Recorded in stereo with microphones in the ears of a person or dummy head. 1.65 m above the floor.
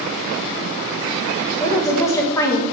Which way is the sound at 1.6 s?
20° left (ahead or behind).